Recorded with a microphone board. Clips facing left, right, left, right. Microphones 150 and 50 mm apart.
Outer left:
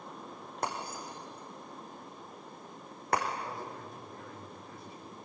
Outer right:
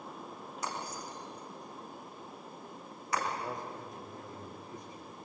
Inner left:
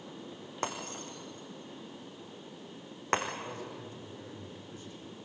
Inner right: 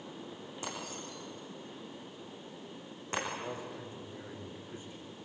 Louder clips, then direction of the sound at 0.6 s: Outer left 3 dB, inner left 5 dB; 60° left (ahead or behind).